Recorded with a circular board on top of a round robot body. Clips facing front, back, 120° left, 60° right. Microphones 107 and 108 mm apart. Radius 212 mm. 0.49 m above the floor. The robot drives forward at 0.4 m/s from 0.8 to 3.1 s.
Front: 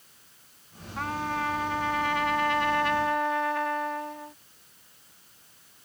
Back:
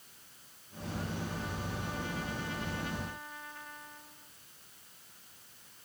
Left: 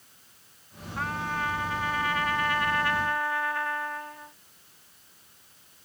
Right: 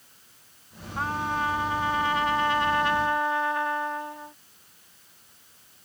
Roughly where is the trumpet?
Ahead.